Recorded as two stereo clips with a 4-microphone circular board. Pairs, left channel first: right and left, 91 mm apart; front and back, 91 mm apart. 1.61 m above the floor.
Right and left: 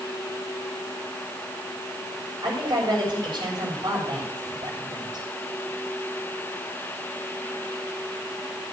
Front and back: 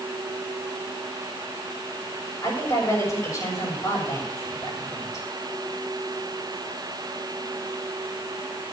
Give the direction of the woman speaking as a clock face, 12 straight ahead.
10 o'clock.